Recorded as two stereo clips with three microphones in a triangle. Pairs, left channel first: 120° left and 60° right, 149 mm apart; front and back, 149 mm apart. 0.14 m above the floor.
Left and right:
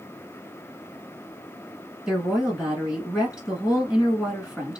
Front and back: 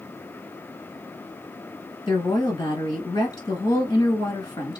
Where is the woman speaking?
20° left, 1.3 m.